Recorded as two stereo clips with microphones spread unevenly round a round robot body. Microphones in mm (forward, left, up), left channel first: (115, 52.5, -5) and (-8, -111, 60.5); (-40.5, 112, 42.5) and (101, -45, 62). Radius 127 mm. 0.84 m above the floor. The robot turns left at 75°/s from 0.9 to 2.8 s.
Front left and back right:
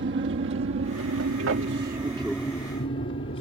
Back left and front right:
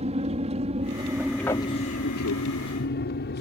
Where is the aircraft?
105° right; by 3.4 s 105° left.